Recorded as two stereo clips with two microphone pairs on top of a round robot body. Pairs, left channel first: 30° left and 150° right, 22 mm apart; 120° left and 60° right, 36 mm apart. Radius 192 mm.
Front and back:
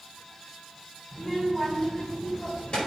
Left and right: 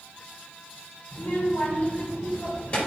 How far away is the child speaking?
About 3.5 m.